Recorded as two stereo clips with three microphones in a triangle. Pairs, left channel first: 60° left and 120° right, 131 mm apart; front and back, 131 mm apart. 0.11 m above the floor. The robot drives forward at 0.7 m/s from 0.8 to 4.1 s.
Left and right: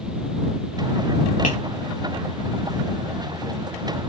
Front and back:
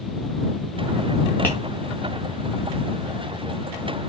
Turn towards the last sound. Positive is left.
turn(degrees=95)